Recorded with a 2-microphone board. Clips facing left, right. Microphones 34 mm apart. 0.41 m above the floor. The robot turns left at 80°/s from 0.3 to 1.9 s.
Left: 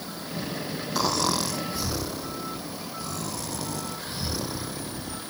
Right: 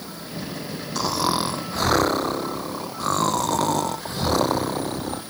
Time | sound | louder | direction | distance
0.9 | snoring | right 3 dB | 5° left | ?